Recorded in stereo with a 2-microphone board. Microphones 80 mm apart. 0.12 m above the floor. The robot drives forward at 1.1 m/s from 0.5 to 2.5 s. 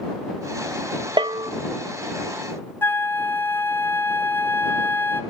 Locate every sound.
1.2 s a bell: 75° right (ahead or behind), 0.6 m; by 1.5 s 50° right (ahead or behind), 0.7 m
2.8 s a flute: 25° left (ahead or behind), 0.7 m